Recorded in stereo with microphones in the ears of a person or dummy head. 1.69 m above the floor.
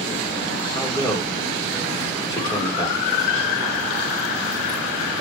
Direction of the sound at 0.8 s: 20° left (ahead or behind).